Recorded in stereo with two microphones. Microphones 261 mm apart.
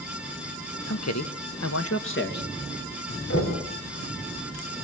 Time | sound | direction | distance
0.9 | a man speaking | 70° left (ahead or behind) | 1.4 m
3.3 | knocking | 65° left (ahead or behind) | 4 m